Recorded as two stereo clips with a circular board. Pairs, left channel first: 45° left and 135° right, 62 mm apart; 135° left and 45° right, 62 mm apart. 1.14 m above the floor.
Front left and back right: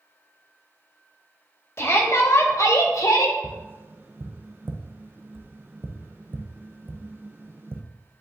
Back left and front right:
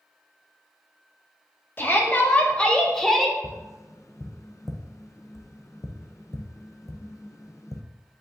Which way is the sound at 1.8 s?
85° left.